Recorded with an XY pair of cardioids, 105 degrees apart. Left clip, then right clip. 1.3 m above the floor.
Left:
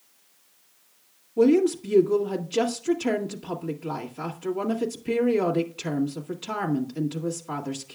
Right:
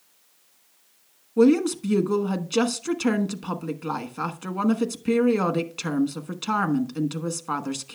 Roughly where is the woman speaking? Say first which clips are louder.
Right 1 dB; ahead right.